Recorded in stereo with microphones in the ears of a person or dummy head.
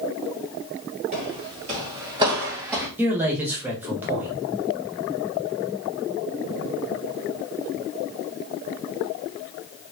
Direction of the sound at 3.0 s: 5° right (ahead or behind).